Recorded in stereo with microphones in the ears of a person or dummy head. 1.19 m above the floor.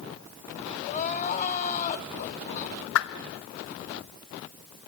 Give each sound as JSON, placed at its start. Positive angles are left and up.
{"t": 0.8, "sound": "crying", "side_deg": 40, "distance_m": 1.6}
{"t": 3.0, "sound": "a whoosh", "side_deg": 80, "distance_m": 1.0}